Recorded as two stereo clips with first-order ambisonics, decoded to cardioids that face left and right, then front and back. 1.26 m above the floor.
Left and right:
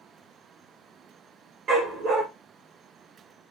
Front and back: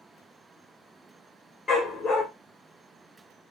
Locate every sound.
1.7 s a dog barking: 60° right, 1.1 m